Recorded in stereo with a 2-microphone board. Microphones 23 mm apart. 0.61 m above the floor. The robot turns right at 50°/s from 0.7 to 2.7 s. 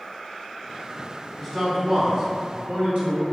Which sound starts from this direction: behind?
A man speaking, at 1.4 s.